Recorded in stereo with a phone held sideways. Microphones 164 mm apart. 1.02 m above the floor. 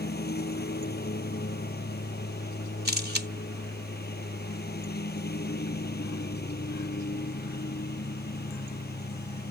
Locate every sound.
0.0 s a lawn mower: 75° left (ahead or behind)
2.9 s a camera shutter: 80° right